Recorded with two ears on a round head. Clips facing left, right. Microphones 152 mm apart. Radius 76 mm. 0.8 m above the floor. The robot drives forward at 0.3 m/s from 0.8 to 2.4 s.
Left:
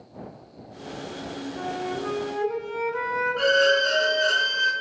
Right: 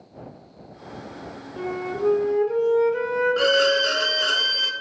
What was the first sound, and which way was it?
A flute, 40° right (ahead or behind).